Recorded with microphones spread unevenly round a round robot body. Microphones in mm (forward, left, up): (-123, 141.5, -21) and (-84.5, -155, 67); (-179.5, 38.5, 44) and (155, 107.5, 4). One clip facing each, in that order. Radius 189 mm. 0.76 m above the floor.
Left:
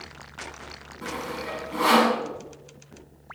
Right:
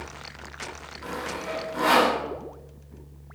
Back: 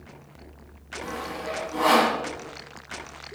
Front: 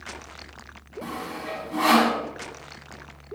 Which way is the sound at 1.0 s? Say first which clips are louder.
Left 1 dB, back 1 dB; 60° left.